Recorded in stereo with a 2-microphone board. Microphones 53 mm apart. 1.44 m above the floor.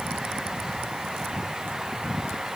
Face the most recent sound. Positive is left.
No sound to turn to.